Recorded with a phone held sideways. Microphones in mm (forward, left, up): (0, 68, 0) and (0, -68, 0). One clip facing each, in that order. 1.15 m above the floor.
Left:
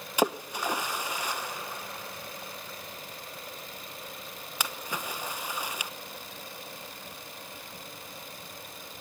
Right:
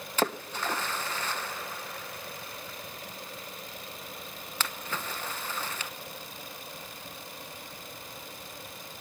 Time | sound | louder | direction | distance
0.2 | a splash | left 3 dB | 15° left (ahead or behind) | 0.8 m